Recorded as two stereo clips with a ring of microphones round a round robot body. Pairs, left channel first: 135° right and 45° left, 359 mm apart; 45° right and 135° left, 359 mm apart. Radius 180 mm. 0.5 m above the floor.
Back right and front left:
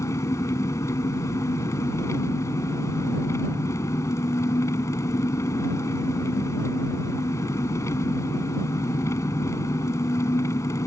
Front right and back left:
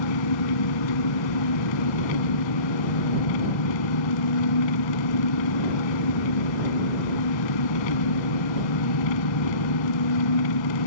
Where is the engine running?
55° right.